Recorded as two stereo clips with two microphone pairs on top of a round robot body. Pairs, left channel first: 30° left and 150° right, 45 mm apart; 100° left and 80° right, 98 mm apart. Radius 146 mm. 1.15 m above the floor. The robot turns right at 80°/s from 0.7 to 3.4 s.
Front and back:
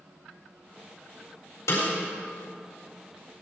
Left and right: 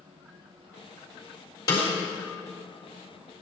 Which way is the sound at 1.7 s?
50° left.